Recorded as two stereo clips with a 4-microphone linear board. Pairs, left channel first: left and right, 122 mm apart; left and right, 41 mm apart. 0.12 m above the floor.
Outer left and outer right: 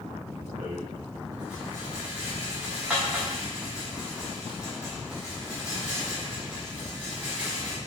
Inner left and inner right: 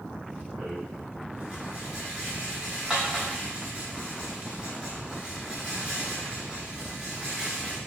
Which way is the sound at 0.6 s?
10° right (ahead or behind).